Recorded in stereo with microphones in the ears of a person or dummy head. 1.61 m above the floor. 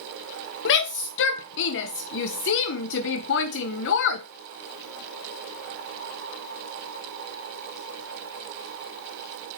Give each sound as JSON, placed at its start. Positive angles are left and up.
{"t": 0.7, "sound": "a shout", "side_deg": 65, "distance_m": 0.9}